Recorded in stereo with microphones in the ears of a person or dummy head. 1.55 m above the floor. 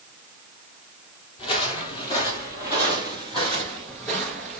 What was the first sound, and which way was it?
Footsteps, 30° left (ahead or behind).